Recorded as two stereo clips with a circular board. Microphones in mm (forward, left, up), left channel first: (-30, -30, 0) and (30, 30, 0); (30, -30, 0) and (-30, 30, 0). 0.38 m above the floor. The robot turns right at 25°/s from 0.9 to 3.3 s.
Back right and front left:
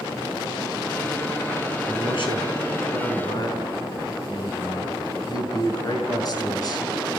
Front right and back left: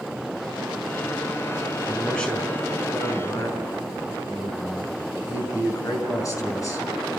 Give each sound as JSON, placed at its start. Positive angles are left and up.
{"t": 1.9, "sound": "a man speaking", "azimuth_deg": -130, "distance_m": 5.5}